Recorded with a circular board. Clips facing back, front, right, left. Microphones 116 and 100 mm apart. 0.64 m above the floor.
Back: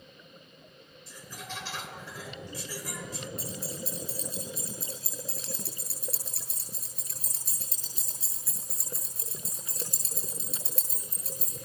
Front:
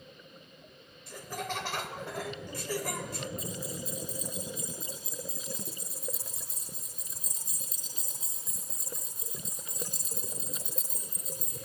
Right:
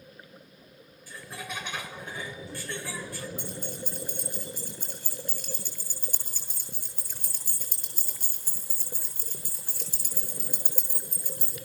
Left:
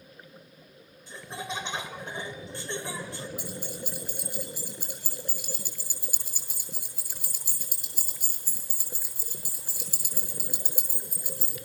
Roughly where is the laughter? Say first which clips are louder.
Front 7 dB, left 3 dB; ahead left.